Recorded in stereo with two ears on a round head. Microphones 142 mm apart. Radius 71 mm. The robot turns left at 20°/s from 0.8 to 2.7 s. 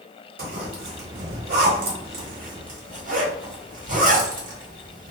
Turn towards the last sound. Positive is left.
turn(degrees=-55)  # may be behind; listen again after turning